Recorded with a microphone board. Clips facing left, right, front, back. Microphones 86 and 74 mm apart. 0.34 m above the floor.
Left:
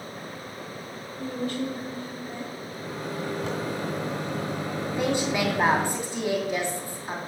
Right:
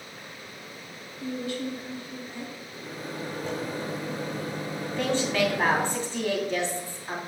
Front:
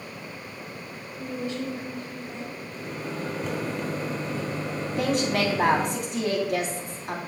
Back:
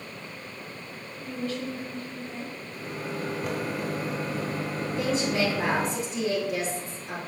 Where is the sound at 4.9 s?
15° left, 2.5 m.